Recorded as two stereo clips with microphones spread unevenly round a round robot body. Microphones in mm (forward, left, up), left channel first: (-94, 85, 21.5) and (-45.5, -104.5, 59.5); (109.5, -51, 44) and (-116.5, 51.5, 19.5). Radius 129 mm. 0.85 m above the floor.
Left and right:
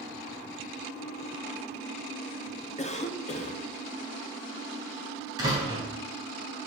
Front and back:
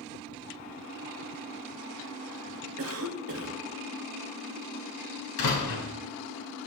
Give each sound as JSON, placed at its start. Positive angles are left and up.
{"t": 2.8, "sound": "a cough", "azimuth_deg": 150, "distance_m": 1.5}
{"t": 5.4, "sound": "a door slam", "azimuth_deg": 0, "distance_m": 4.0}